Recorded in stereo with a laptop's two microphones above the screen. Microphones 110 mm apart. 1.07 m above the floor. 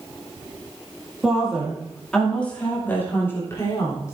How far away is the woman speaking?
About 2 m.